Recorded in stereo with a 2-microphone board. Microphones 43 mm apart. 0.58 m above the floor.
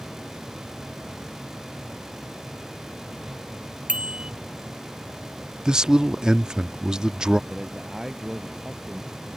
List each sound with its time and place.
3.9 s a bicycle bell: 25° right (ahead or behind)
5.7 s a man speaking: 15° right (ahead or behind)
7.5 s a man speaking: 15° right (ahead or behind)